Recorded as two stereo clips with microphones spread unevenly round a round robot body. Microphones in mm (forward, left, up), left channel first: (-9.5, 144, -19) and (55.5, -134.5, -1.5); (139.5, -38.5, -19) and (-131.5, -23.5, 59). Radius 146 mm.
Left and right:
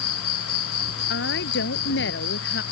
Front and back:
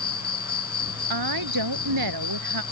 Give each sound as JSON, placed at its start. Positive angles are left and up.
{"t": 0.0, "sound": "an insect", "azimuth_deg": 65}
{"t": 1.1, "sound": "a woman speaking", "azimuth_deg": 160}